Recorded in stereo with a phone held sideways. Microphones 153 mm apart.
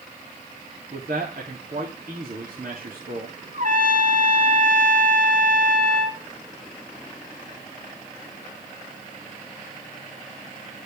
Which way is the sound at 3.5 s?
60° right (ahead or behind).